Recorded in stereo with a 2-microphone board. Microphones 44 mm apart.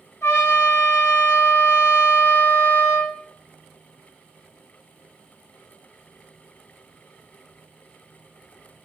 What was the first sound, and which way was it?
A trumpet, 70° left (ahead or behind).